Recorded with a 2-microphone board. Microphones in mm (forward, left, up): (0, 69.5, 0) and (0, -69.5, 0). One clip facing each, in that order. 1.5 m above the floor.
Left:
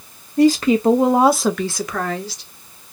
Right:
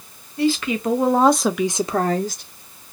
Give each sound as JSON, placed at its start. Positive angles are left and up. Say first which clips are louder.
{"t": 0.4, "sound": "a woman speaking", "louder": "left 7 dB", "side_deg": 45, "distance_m": 0.8}